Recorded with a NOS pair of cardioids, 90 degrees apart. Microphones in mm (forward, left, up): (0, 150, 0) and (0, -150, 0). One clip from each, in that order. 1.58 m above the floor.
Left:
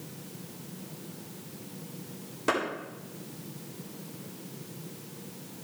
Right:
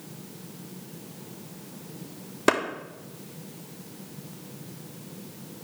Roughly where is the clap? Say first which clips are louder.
Right 5 dB; ahead right.